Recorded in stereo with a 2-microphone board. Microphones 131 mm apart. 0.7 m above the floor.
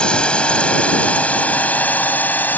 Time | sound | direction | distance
0.0 | a drone | 10° left (ahead or behind) | ?